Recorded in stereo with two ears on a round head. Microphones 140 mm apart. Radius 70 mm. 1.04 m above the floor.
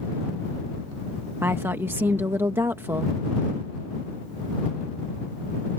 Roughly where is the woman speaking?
Centre.